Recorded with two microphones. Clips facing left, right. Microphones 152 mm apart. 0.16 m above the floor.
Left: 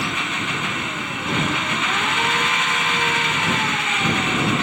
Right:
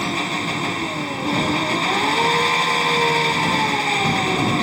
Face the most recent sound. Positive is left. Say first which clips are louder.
# right 3 dB
turn(degrees=-35)  # may be behind; listen again after turning